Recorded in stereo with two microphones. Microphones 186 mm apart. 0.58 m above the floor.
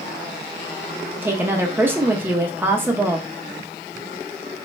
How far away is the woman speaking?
About 0.6 m.